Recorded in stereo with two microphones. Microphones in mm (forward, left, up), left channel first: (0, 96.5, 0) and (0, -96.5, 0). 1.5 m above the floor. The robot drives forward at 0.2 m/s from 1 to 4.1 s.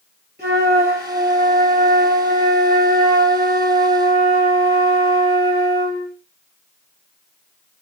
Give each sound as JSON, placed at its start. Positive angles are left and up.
{"t": 0.4, "sound": "a flute", "side_deg": -55, "distance_m": 2.0}